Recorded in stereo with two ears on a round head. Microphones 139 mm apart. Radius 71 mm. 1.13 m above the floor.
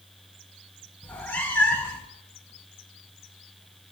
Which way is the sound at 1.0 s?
10° left (ahead or behind).